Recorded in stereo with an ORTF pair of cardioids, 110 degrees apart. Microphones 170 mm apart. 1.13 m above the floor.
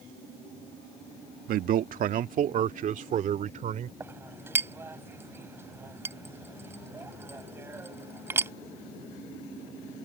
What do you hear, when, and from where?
1.5 s a man speaking: 60° right; by 3.9 s 50° right
4.0 s a clink: 15° right